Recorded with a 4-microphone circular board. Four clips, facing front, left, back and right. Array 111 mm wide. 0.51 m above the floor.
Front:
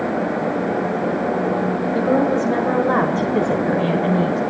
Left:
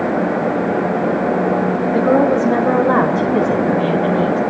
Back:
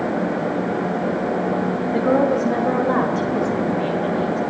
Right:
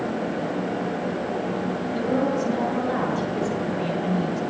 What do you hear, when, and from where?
1.9 s a woman speaking: 110° left, 2.5 m; by 4.4 s 20° left, 2 m